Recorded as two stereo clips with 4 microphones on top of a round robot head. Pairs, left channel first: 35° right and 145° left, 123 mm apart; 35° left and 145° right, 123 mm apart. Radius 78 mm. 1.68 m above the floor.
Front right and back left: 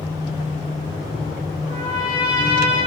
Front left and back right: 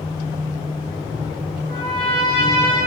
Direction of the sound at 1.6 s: 145° right.